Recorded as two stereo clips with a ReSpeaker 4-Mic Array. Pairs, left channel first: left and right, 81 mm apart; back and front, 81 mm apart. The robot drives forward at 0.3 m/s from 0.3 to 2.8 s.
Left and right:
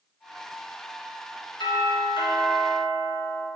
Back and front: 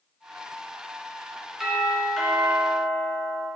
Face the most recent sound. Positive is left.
turn(degrees=100)